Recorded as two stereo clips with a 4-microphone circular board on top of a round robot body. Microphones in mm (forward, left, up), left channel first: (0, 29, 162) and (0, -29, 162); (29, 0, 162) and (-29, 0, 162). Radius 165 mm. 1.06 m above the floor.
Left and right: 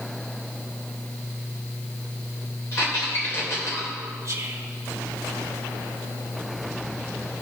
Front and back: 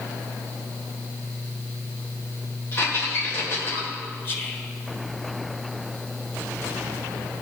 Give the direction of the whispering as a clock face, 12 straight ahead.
2 o'clock.